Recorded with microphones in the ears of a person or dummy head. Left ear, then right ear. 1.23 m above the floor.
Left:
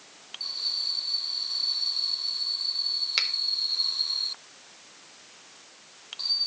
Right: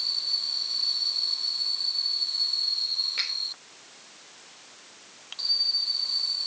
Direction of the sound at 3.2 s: 65° left (ahead or behind).